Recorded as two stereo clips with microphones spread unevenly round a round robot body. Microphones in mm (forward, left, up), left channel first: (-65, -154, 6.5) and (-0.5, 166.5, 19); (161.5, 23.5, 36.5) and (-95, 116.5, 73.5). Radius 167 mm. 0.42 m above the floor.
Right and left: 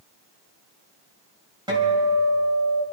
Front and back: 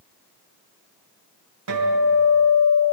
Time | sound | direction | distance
1.7 | a guitar | 155° left | 2.5 m